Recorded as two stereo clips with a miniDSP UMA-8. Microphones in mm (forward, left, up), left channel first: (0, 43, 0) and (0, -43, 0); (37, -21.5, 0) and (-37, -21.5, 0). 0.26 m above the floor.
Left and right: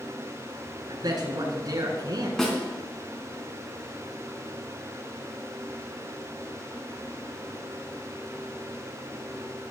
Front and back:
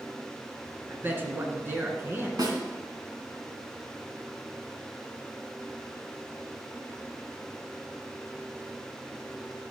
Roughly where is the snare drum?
Behind.